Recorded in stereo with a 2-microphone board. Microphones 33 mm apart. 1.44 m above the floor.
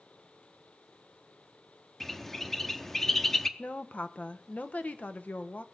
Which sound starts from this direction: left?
A woman speaking, at 3.6 s.